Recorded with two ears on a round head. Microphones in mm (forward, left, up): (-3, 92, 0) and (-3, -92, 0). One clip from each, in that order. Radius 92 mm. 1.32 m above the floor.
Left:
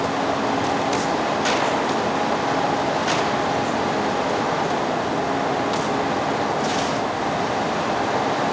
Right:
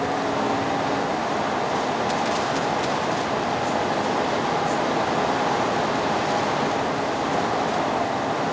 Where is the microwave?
No microwave in this recording.